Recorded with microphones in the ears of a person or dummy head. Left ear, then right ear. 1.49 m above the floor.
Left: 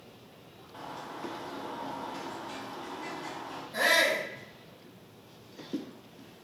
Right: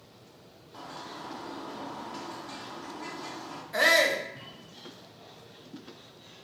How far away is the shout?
About 0.7 m.